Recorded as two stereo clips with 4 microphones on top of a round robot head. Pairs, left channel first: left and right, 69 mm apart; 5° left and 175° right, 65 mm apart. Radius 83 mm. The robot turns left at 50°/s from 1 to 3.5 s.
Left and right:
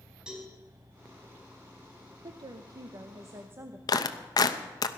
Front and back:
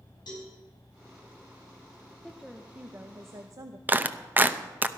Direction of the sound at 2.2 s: 80° right.